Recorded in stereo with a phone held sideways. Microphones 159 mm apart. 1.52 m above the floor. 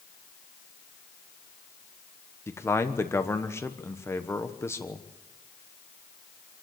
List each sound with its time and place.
2.5 s a man speaking: 15° left (ahead or behind), 1.1 m